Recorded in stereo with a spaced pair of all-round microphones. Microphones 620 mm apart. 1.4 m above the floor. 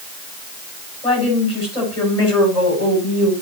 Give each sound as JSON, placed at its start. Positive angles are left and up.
{"t": 1.0, "sound": "a woman speaking", "side_deg": 75, "distance_m": 8.0}